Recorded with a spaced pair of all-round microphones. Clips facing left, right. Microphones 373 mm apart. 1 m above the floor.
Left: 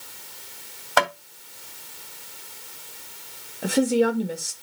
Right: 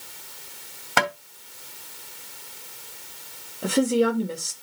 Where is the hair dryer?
No hair dryer in this recording.